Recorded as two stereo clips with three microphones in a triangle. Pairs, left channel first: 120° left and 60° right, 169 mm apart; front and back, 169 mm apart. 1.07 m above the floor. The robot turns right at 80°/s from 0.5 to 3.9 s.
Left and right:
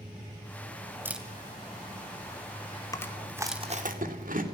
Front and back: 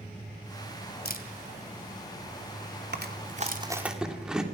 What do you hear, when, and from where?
1.1 s a camera shutter: 15° left, 2.5 m; by 3.7 s 135° right, 2.5 m
2.9 s chewing: 170° right, 2.5 m; by 4.4 s 95° right, 2.5 m